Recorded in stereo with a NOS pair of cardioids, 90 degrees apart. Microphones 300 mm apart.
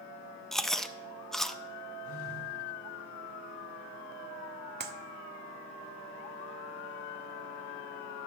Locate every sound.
0.5 s chewing: straight ahead, 0.5 m
2.0 s a phone buzzing: 50° left, 3 m
4.8 s a clap: 35° right, 1.0 m